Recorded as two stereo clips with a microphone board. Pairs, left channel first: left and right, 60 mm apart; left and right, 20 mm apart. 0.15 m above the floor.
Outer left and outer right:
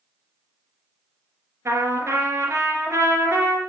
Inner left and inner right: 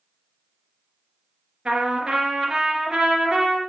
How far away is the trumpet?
About 2.5 m.